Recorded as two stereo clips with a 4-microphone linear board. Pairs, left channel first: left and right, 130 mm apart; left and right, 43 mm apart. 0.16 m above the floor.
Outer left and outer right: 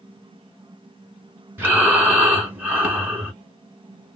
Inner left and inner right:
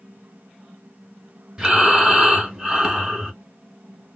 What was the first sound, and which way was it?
Breathing, 15° right (ahead or behind).